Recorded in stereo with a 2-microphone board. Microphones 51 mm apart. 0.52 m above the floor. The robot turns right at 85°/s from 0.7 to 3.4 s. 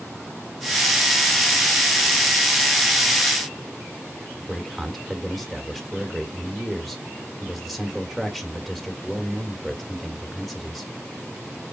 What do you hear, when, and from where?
4.4 s a man speaking: centre (ahead or behind), 1.7 m